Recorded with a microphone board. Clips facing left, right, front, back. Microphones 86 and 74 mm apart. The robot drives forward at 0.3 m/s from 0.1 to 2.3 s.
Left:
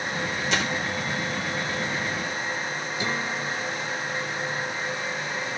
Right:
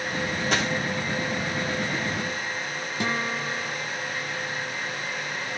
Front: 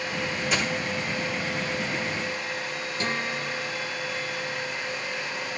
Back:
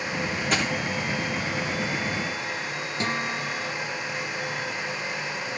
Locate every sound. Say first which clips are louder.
0.5 s a dropped coin: right 1 dB, back 2 dB; 140° right, 9 m
3.0 s a guitar: right 2 dB, back 1 dB; 130° right, 7 m